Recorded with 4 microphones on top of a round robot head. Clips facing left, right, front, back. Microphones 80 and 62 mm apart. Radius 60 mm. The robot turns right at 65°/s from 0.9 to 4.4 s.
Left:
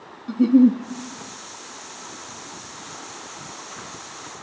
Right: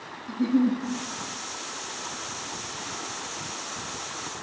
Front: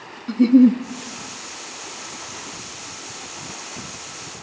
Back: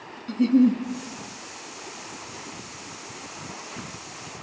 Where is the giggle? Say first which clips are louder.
Left 8 dB, front 6 dB; 45° left, 1.0 m.